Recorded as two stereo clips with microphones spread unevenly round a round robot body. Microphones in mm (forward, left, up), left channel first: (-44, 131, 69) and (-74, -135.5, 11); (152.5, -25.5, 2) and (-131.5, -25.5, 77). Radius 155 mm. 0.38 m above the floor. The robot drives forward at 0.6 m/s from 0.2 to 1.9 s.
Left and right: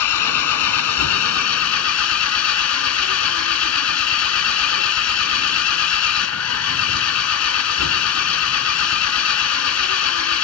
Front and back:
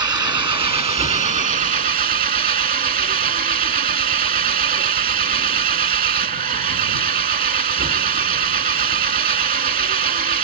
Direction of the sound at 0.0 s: 100° left.